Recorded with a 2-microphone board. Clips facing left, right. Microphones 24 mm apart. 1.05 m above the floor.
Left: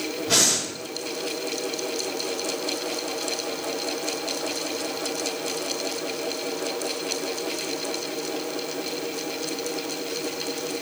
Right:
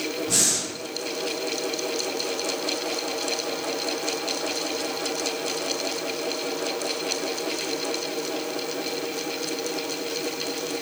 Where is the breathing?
60° left (ahead or behind), 3 m.